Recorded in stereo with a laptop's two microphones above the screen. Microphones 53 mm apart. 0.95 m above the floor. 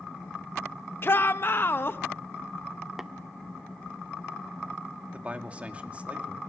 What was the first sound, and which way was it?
A shout, 40° left (ahead or behind).